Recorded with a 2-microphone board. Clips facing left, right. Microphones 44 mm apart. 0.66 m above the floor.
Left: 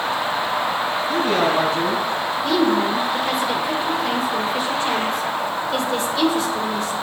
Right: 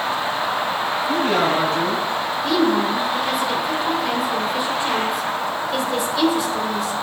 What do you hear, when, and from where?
1.1 s a man speaking: 65° right (ahead or behind), 3.5 m
2.4 s a woman speaking: 5° right (ahead or behind), 1.8 m